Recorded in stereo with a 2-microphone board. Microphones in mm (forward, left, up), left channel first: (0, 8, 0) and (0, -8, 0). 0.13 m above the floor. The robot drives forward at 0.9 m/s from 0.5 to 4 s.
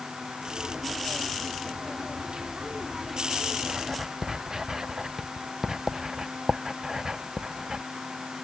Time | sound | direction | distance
3.6 | writing | 35° right (ahead or behind) | ?